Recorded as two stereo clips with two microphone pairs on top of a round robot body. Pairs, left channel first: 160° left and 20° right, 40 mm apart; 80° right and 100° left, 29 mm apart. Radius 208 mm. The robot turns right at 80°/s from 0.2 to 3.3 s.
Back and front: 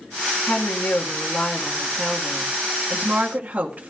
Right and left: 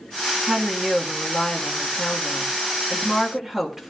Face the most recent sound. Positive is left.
turn(degrees=25)